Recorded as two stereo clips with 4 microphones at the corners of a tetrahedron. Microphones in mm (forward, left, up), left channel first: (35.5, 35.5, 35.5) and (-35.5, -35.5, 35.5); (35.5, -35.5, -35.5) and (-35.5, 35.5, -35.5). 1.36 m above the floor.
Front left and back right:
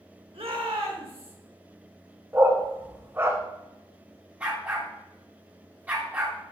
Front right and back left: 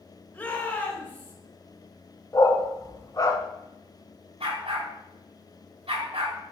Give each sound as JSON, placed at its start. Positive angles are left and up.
{"t": 0.3, "sound": "a shout", "azimuth_deg": -120, "distance_m": 2.5}
{"t": 2.3, "sound": "a dog barking", "azimuth_deg": -80, "distance_m": 1.4}
{"t": 4.4, "sound": "a dog barking", "azimuth_deg": 150, "distance_m": 3.5}